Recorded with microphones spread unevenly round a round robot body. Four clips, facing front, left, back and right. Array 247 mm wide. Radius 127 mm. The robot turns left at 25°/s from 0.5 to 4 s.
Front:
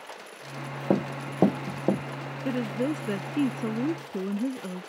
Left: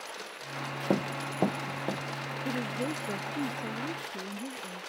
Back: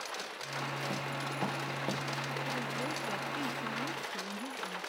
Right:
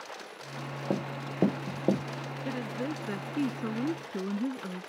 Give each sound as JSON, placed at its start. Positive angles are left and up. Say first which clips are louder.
{"t": 0.9, "sound": "running footsteps", "louder": "left 3 dB, front 10 dB", "azimuth_deg": 25}
{"t": 2.5, "sound": "a woman speaking", "louder": "left 1 dB, front 14 dB", "azimuth_deg": 15}